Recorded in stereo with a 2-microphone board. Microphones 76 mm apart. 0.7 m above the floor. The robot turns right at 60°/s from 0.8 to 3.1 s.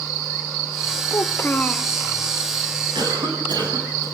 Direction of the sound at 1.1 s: 135° left.